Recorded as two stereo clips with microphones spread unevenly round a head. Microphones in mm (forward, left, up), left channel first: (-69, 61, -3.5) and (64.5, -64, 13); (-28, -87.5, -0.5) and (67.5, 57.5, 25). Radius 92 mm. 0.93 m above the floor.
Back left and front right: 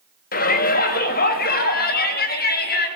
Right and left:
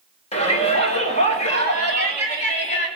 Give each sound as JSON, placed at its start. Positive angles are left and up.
{"t": 0.3, "sound": "a shout", "azimuth_deg": 180, "distance_m": 3.0}